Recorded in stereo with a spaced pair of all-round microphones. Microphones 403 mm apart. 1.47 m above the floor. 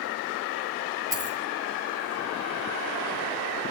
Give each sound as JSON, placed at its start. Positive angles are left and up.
{"t": 1.1, "sound": "a dropped coin", "side_deg": -50, "distance_m": 5.5}